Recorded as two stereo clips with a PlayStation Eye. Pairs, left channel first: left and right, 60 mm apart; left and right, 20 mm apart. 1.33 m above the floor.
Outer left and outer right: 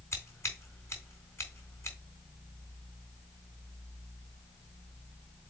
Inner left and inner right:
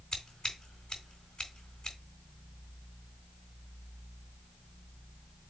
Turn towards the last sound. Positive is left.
turn(degrees=45)  # may be behind; listen again after turning